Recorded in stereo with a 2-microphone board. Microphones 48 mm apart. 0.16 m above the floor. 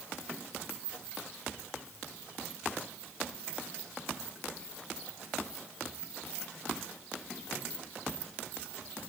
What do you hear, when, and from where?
Only background noise.